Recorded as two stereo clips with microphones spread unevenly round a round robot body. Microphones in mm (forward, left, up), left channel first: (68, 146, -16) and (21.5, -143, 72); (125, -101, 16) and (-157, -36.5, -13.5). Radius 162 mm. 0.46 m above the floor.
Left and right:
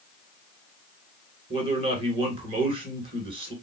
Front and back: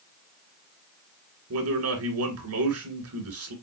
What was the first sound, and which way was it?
A man speaking, straight behind.